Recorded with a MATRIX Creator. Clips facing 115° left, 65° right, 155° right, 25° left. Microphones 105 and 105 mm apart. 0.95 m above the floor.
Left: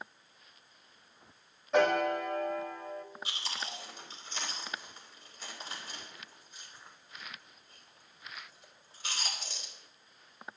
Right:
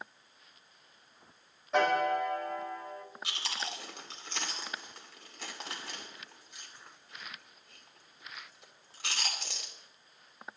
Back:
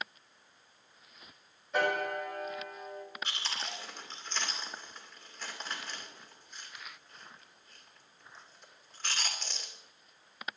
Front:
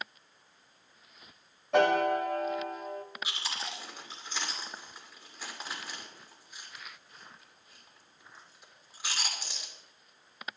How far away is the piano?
About 1.7 m.